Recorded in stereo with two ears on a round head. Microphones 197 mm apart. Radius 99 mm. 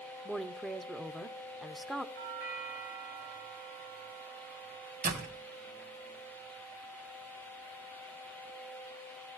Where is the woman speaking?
Centre (ahead or behind), 0.8 m.